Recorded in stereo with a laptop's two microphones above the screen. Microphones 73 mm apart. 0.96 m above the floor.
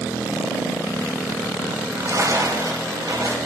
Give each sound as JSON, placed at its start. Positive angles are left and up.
{"t": 1.7, "sound": "a splash", "side_deg": -50, "distance_m": 3.5}